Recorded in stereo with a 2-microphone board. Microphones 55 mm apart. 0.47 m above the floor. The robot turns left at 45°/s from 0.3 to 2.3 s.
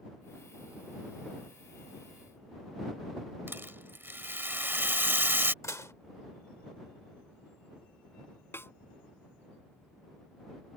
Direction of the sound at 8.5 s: 45° left (ahead or behind).